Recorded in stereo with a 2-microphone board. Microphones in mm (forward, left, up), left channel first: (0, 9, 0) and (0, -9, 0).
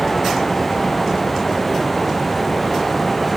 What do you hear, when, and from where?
Only background noise.